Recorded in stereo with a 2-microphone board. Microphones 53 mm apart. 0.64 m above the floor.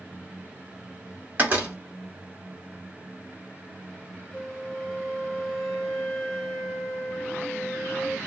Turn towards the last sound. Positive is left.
turn(degrees=10)  # may be behind; listen again after turning